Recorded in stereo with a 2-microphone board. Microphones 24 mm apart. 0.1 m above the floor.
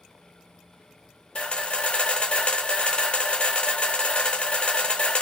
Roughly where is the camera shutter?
Left.